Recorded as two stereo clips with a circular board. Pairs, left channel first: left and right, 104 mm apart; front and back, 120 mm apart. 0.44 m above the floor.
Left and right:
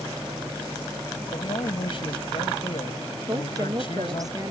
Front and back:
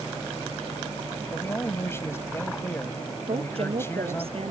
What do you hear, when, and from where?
1.3 s a man speaking: 65° left
3.3 s a woman speaking: 145° right